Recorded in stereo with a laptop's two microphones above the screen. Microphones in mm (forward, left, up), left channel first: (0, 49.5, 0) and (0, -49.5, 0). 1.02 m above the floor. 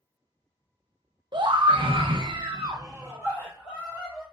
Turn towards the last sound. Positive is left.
turn(degrees=-10)  # may be behind; listen again after turning